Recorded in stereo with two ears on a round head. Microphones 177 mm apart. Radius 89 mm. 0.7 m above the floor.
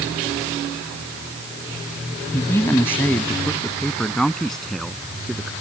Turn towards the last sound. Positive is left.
turn(degrees=0)  # may be behind; listen again after turning